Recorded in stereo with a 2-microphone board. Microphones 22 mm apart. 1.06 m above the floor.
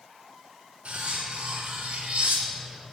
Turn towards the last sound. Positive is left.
turn(degrees=-75)  # may be behind; listen again after turning